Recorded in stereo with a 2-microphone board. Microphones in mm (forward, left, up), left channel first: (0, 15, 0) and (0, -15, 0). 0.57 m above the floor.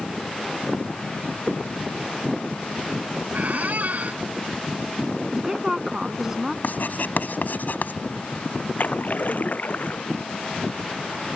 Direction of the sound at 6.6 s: 75° left (ahead or behind).